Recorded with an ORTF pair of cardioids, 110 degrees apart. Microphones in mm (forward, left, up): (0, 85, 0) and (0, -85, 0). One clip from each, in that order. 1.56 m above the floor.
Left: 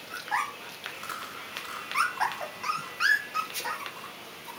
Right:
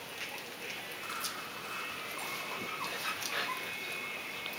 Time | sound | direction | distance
0.9 | chewing | 45° left | 7.5 m